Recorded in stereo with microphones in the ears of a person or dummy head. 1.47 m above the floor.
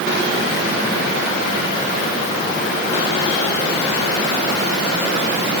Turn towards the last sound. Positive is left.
No sound to turn to.